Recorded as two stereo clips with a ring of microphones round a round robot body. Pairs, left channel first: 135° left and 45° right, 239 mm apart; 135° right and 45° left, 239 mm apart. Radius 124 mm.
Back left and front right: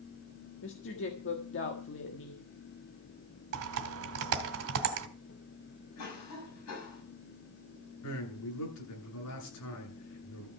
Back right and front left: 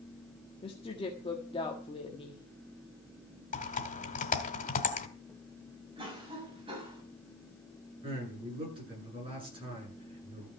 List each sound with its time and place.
0.6 s a woman speaking: 160° left, 1.7 m
3.5 s typing on a keyboard: 75° right, 1.7 m
6.0 s a cough: 115° left, 6 m
8.0 s a man speaking: 115° left, 9 m